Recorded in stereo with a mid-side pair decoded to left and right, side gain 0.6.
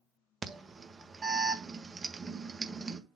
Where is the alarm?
30° right, 1.5 m.